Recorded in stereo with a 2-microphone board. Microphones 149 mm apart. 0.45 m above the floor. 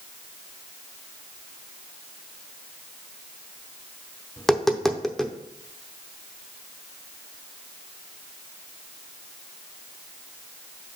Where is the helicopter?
No helicopter in this recording.